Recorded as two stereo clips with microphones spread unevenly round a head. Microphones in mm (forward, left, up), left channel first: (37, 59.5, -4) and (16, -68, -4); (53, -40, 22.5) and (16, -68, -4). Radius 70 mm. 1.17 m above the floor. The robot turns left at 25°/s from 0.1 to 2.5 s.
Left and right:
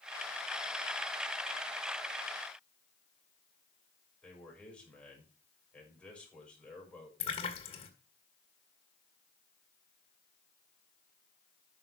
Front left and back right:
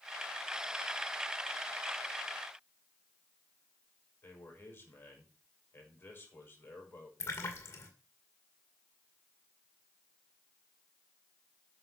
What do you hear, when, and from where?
4.2 s a man speaking: straight ahead, 6 m
7.2 s a splash: 35° left, 2 m